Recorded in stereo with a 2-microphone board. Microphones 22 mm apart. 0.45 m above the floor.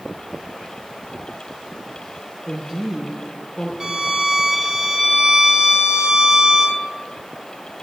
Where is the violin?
20° right (ahead or behind), 0.9 m.